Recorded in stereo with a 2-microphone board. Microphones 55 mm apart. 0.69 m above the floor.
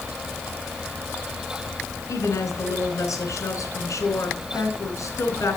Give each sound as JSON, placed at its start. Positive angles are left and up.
{"t": 2.1, "sound": "a woman speaking", "side_deg": 80, "distance_m": 3.5}